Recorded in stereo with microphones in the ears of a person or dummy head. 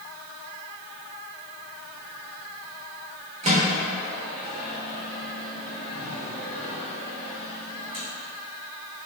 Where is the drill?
I don't hear a drill.